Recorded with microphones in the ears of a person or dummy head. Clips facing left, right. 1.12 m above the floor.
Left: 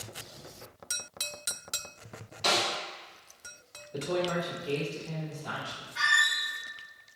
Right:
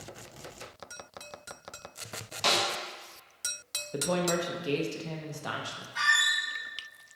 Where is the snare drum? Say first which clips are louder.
Even; 70° right (ahead or behind), 1.7 m.